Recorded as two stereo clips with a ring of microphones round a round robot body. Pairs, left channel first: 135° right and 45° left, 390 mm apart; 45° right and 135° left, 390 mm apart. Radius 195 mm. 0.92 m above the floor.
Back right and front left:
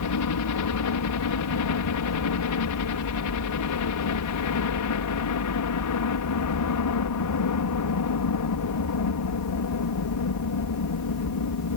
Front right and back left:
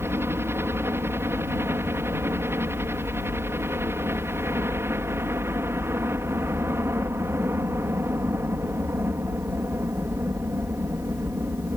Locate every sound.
0.0 s a helicopter: 145° right